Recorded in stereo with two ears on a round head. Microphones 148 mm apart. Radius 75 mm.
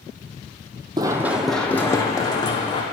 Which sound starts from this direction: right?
Running footsteps, at 1.0 s.